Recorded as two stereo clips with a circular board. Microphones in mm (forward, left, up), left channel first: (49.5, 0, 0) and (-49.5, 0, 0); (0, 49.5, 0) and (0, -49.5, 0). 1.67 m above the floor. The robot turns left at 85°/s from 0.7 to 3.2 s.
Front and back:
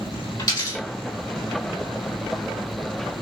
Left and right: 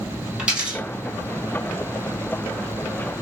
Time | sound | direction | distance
0.4 | a dropped coin | 15° right | 1.8 m